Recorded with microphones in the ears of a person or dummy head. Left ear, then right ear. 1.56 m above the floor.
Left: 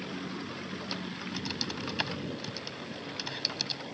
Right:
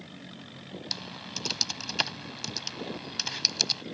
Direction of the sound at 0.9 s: 25° right (ahead or behind).